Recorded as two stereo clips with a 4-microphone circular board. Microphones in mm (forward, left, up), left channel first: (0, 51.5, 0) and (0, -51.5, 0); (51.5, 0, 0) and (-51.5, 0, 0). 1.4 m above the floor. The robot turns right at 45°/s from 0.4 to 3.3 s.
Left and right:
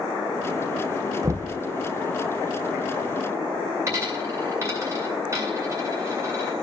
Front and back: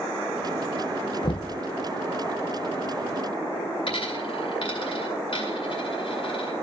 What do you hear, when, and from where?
1.2 s knocking: 35° right, 0.5 m; by 1.6 s 20° right, 0.5 m
3.9 s a dropped coin: 30° right, 2 m